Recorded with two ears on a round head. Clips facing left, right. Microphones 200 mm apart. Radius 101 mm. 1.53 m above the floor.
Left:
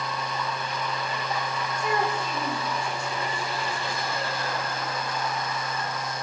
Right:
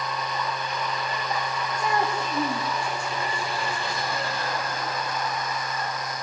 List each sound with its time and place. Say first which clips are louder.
1.8 s a child speaking: right 1 dB; 40° right (ahead or behind), 6.5 m